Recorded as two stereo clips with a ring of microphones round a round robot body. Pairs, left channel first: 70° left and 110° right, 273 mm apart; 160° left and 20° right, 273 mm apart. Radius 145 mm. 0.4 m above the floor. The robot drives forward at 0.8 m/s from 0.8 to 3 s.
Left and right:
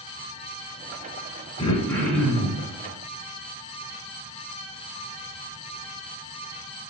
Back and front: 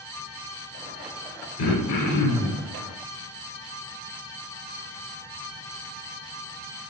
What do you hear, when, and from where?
1.6 s throat clearing: 135° left, 0.6 m; by 2.6 s 160° left, 1.3 m